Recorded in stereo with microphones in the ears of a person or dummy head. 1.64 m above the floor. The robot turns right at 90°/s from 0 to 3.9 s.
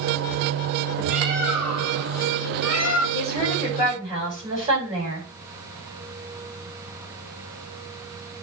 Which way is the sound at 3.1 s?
140° left.